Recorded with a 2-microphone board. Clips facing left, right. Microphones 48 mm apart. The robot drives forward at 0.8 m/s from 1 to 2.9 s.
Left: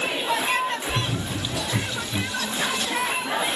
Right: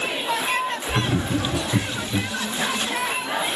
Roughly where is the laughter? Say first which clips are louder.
Right 4 dB; right.